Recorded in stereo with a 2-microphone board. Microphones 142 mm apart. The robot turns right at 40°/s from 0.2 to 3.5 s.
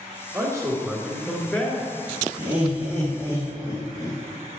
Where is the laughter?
60° right, 2.5 m; by 4.2 s 15° right, 2.5 m.